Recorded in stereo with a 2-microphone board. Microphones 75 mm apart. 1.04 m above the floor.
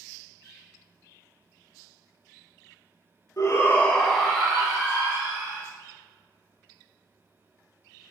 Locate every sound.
3.4 s a shout: 50° left (ahead or behind), 0.6 m; by 5.6 s 20° right (ahead or behind), 2.5 m